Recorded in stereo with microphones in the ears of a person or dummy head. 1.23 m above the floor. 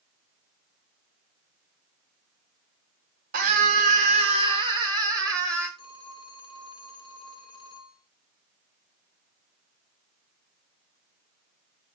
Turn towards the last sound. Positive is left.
turn(degrees=25)  # may be behind; listen again after turning